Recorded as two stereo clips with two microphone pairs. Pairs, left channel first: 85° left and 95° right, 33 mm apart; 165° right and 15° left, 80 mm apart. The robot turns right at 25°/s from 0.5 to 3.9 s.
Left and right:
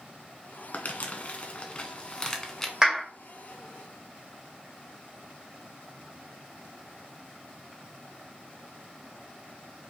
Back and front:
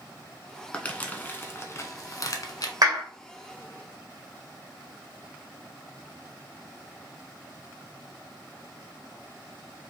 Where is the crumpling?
120° left, 0.8 m; by 2.7 s 170° left, 0.8 m.